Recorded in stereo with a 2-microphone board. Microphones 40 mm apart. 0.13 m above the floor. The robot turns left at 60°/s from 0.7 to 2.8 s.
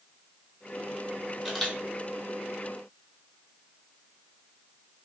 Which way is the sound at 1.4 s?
5° right (ahead or behind).